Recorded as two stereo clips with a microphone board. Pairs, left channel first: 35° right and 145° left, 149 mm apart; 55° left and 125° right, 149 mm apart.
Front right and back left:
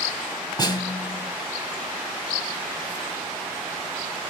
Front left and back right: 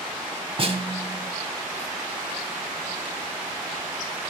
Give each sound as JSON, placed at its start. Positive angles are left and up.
{"t": 0.6, "sound": "a snare drum", "azimuth_deg": -90, "distance_m": 1.5}